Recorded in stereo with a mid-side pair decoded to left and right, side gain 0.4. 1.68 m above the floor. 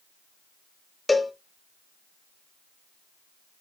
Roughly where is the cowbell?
Ahead.